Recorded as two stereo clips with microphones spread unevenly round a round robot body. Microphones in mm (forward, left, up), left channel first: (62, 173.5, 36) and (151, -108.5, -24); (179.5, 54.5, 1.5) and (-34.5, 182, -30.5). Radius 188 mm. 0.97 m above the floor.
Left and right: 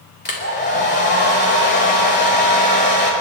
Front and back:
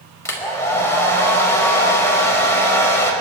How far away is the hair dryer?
About 5 m.